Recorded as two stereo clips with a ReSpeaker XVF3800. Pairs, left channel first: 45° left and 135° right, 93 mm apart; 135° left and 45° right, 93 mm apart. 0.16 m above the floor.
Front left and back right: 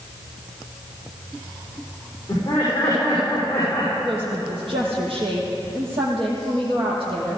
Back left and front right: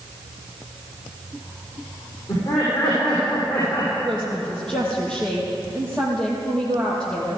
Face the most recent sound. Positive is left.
turn(degrees=-145)